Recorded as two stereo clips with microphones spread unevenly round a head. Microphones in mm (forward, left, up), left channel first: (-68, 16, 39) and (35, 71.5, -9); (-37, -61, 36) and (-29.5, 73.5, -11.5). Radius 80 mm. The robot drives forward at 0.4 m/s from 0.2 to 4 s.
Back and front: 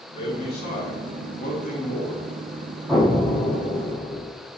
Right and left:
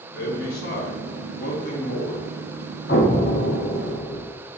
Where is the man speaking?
85° right, 0.9 m; by 2.3 s 135° right, 1.2 m.